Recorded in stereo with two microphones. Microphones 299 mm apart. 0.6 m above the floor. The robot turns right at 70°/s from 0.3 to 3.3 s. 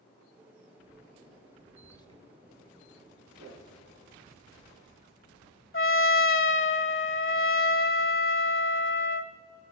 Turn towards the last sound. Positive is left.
turn(degrees=45)  # may be behind; listen again after turning